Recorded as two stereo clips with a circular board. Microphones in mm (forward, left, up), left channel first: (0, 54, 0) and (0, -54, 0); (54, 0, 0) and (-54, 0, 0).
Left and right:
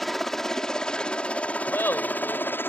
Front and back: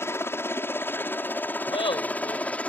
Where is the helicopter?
5° left; by 2.7 s 60° left.